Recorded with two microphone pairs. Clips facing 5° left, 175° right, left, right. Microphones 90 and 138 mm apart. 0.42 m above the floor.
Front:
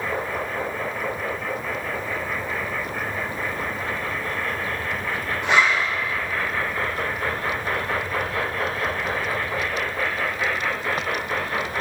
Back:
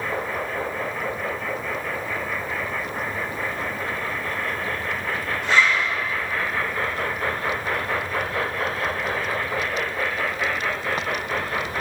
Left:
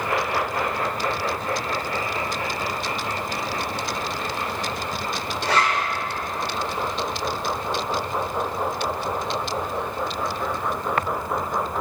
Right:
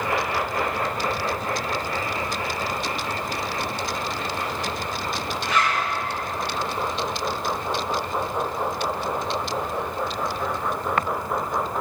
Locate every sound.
5.4 s a zipper: 75° left, 4.5 m